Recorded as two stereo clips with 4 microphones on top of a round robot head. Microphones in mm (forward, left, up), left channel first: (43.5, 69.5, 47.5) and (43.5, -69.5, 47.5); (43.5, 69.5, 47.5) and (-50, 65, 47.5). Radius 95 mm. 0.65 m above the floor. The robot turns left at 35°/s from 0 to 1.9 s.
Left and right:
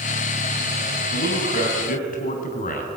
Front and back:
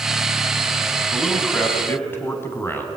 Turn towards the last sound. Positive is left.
turn(degrees=70)